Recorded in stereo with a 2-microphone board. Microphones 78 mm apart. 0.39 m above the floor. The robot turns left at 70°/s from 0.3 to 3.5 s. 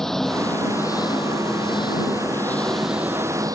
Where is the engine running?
175° left; by 3.5 s 50° right.